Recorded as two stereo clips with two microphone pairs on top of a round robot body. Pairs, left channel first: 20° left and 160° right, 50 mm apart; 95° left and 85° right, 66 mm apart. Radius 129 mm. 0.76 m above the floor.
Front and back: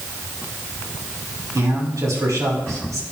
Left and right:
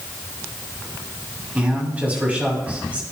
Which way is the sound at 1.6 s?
155° right.